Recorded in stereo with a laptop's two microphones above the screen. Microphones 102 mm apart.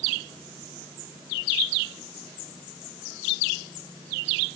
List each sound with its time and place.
Only background noise.